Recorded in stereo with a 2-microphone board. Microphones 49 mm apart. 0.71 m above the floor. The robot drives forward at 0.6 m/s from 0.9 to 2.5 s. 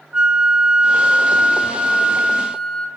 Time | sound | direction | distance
0.1 | a flute | 20° right (ahead or behind) | 0.5 m